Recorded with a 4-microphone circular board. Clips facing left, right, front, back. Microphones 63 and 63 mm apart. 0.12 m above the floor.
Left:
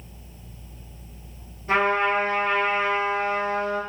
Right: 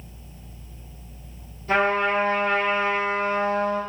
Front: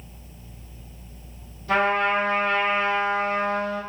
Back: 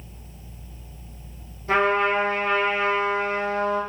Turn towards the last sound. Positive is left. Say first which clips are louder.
# even, back 1 dB
turn(degrees=140)